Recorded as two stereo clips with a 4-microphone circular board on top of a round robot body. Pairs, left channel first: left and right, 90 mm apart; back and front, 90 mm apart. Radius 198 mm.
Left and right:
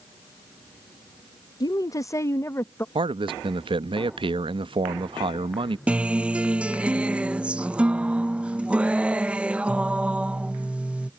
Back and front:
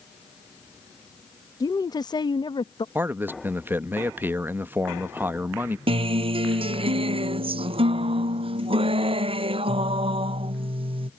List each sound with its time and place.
1.6 s a woman speaking: 135° left; by 2.9 s 155° left
3.0 s a man speaking: 70° right
5.9 s a guitar: 15° right